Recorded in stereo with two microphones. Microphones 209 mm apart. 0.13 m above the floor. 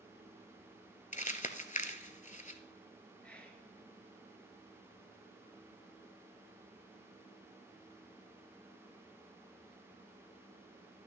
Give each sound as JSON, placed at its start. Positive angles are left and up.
{"t": 1.1, "sound": "crumpling", "side_deg": 40, "distance_m": 0.6}
{"t": 3.2, "sound": "whispering", "side_deg": 5, "distance_m": 1.6}